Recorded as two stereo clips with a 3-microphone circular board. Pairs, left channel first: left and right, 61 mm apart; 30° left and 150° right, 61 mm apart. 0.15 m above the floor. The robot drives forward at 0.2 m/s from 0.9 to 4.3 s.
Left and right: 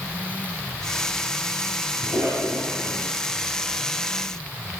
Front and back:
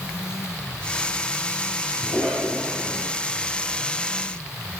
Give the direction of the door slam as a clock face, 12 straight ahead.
No door slam in this recording.